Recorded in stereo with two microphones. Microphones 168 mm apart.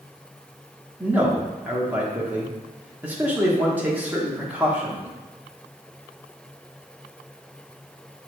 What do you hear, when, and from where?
1.0 s a man speaking: 10° right (ahead or behind), 0.8 m